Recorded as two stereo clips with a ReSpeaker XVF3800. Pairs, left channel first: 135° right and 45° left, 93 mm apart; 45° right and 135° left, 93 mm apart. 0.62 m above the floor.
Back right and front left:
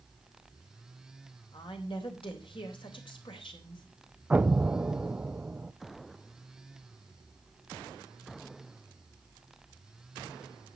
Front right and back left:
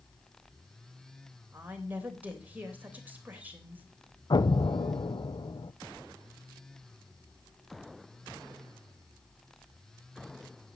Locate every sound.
1.5 s a woman speaking: 155° right, 3 m
4.3 s an explosion: 30° right, 0.6 m